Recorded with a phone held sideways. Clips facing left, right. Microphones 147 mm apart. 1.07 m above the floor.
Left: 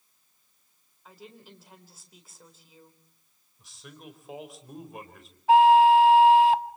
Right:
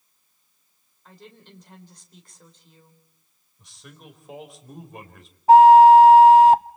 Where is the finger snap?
I don't hear a finger snap.